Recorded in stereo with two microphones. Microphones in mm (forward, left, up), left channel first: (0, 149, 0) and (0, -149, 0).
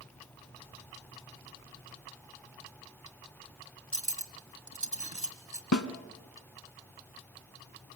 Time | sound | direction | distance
3.9 | cutlery clinking | 65° right (ahead or behind) | 1.7 m
5.7 | a snare drum | 75° left (ahead or behind) | 1.2 m